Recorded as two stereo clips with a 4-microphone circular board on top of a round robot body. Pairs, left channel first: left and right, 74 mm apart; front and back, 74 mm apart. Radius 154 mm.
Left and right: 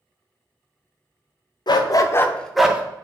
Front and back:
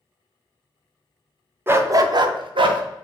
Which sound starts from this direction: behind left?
A dog barking, at 1.7 s.